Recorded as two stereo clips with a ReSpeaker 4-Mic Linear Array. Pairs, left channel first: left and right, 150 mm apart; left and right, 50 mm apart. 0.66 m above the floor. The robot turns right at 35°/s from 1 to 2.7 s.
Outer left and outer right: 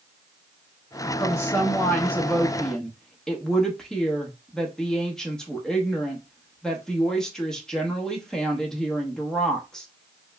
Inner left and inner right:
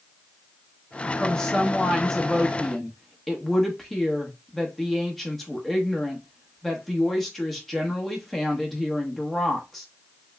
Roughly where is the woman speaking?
Centre.